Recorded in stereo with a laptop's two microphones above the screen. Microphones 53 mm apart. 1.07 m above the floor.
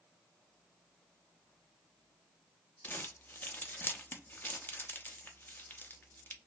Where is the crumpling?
35° left (ahead or behind), 0.5 m.